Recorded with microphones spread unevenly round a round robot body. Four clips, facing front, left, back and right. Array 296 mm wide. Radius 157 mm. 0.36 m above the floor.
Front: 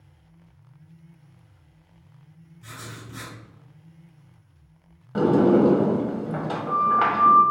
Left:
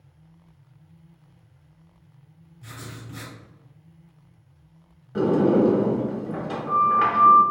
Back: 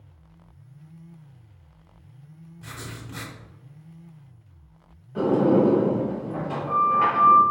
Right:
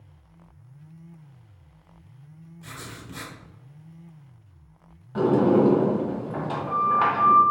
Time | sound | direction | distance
2.6 | writing | 135° right | 1.7 m
5.2 | a sliding door | straight ahead | 1.0 m